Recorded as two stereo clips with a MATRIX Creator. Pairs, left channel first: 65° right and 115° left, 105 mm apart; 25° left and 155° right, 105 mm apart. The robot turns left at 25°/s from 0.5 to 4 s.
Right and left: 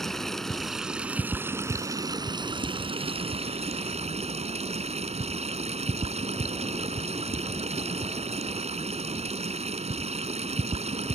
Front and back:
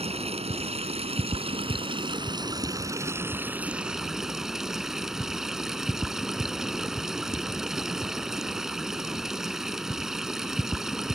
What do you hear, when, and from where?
0.0 s running water: 155° right; by 11.2 s 115° left